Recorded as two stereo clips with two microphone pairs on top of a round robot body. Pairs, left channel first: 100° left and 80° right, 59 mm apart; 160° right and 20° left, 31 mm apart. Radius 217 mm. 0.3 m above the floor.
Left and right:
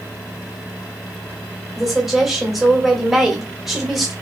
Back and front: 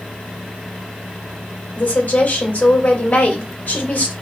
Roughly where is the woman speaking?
Behind.